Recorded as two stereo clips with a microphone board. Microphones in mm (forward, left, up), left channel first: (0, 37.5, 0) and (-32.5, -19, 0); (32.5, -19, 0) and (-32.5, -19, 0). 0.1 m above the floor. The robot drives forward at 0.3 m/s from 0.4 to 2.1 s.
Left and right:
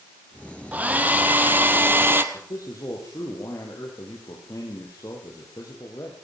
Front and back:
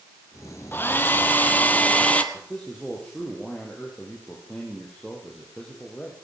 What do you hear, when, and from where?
0.7 s a hair dryer: 55° right, 1.9 m; by 2.2 s 65° right, 1.7 m
2.3 s a man speaking: 75° left, 4 m